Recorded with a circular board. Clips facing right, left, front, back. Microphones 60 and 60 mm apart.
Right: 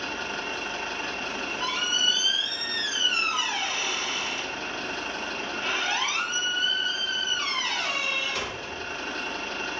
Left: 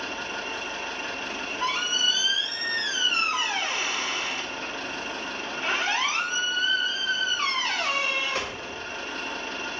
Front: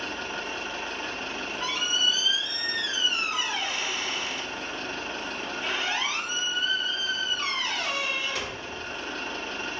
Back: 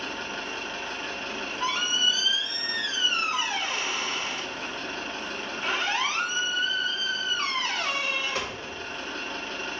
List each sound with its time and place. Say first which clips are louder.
0.0 s an engine running: right 1 dB, front 1 dB; 75° right, 1.9 m
1.3 s a squeak: left 4 dB, back 5 dB; 140° left, 1.3 m